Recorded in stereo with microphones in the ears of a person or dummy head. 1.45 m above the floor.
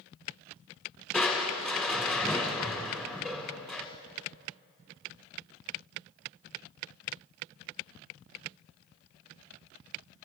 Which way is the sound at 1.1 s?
5° right (ahead or behind).